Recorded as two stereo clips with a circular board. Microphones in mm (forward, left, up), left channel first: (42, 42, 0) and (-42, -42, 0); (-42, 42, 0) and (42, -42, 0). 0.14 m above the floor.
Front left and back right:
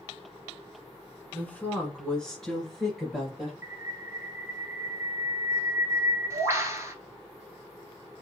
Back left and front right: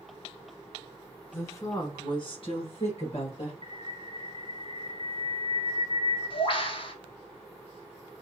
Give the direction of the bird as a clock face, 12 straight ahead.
7 o'clock.